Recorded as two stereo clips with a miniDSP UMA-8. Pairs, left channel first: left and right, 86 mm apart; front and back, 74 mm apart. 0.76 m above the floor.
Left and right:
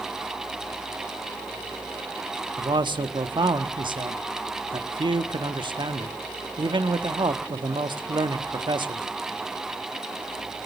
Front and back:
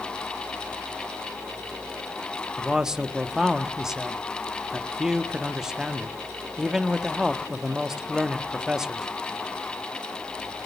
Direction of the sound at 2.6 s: 95° right.